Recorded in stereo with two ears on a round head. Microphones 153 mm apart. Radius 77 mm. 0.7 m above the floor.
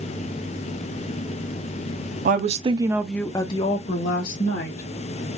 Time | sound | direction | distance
2.2 | a woman speaking | 50° right (ahead or behind) | 0.9 m